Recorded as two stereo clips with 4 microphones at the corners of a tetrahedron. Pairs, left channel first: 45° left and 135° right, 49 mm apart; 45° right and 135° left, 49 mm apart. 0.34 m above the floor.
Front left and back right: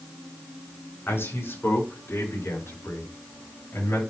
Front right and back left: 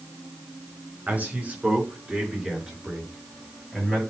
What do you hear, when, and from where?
1.1 s a man speaking: 80° left, 5 m; by 4.0 s 40° left, 7.5 m